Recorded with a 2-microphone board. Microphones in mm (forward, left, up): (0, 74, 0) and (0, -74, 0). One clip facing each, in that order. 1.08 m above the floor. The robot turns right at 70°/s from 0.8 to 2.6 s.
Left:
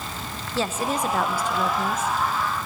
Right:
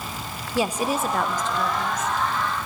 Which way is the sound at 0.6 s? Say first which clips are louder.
Right 2 dB; 25° right.